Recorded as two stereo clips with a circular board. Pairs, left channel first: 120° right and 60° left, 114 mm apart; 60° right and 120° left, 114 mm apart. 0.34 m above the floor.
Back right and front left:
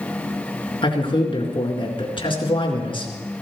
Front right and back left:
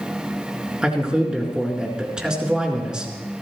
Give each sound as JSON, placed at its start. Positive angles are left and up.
{"t": 0.8, "sound": "a man speaking", "azimuth_deg": -160, "distance_m": 4.0}